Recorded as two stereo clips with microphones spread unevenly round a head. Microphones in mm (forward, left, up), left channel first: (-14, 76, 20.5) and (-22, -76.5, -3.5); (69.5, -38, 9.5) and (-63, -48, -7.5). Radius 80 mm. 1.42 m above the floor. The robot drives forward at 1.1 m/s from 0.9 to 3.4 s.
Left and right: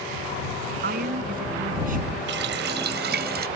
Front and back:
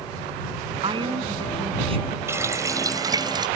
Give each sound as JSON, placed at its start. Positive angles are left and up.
{"t": 0.8, "sound": "a woman speaking", "azimuth_deg": -125}
{"t": 2.3, "sound": "a running tap", "azimuth_deg": -105}